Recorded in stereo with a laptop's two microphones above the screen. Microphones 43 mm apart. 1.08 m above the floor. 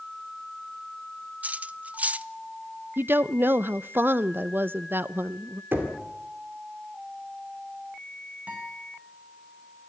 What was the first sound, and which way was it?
Cutlery clinking, 35° right (ahead or behind).